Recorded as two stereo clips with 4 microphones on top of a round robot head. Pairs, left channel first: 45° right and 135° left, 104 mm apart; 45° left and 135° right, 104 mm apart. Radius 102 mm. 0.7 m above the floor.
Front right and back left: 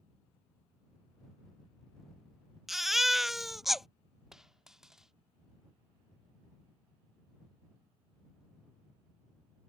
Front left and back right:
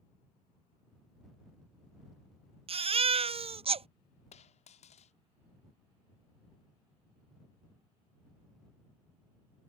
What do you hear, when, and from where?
2.7 s a baby crying: 135° right
4.3 s a dropped coin: 50° left